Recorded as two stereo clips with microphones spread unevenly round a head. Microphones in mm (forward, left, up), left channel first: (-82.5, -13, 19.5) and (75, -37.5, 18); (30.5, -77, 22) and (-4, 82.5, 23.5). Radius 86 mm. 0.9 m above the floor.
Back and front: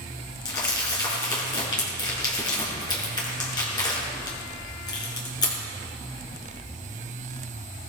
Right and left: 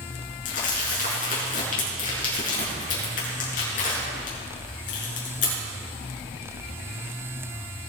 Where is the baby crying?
No baby crying in this recording.